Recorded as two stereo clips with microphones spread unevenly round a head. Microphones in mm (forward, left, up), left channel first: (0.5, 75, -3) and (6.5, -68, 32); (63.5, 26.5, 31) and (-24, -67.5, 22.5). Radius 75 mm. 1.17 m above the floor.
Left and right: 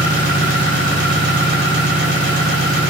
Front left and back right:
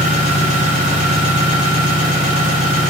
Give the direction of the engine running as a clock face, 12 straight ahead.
4 o'clock.